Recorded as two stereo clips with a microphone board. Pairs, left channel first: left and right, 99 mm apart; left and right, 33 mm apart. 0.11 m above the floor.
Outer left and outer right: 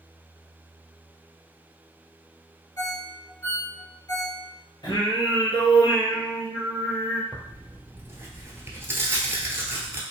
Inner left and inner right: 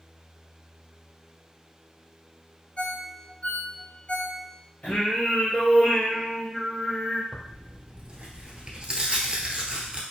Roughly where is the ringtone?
Left.